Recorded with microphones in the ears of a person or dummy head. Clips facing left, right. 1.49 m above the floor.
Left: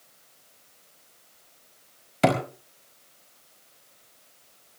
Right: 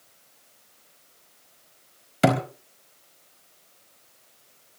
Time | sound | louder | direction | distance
2.2 | a thud | right 1 dB | 5° right (ahead or behind) | 4.5 m